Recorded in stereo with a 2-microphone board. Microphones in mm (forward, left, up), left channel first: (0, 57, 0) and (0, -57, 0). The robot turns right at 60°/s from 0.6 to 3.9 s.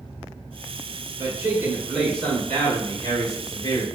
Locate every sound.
1.2 s a man speaking: 55° right, 1.8 m; by 3.9 s 110° left, 1.8 m